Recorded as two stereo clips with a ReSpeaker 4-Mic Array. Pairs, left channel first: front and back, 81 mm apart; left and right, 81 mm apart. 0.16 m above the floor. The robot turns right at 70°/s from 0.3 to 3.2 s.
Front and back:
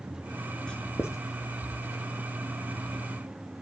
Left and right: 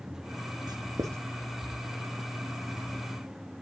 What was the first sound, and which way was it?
Writing, 75° right.